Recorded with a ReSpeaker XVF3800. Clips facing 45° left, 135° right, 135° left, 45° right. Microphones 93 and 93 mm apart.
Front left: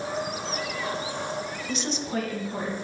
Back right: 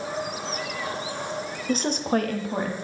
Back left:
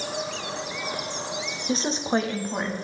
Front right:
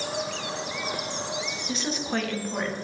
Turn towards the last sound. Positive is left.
turn(degrees=-150)